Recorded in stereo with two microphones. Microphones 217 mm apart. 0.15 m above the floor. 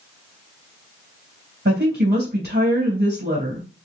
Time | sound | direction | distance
1.6 | a woman speaking | 50° right (ahead or behind) | 3 m